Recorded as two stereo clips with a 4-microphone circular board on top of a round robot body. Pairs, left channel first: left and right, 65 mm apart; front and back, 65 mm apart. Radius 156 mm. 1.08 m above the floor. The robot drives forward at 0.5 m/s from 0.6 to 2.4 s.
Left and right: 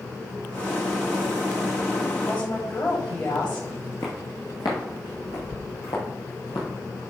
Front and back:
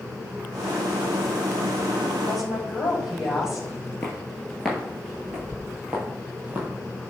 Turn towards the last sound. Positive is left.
turn(degrees=120)